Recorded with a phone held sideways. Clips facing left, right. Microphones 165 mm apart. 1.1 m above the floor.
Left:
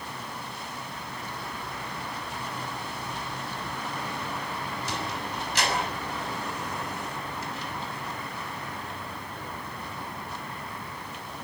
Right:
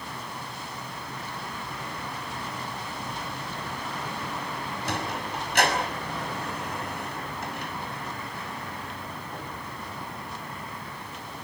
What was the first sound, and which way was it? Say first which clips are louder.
A sliding door: right 4 dB; 60° right (ahead or behind).